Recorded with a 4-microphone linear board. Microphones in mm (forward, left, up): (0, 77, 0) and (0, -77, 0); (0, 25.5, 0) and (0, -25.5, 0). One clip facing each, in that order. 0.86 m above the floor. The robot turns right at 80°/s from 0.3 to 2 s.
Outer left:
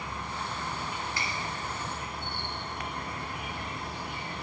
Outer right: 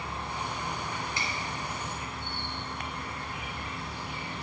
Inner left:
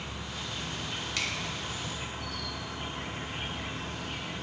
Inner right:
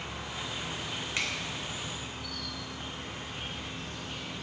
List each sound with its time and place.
0.0 s an insect: 30° right, 3 m; by 4.4 s 105° left, 3 m
1.2 s a finger snap: 25° right (ahead or behind), 2.5 m; by 1.3 s 15° right (ahead or behind), 2.5 m